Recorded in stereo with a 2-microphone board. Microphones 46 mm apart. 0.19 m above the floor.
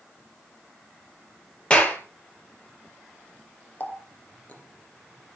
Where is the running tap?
30° left (ahead or behind), 2.5 m.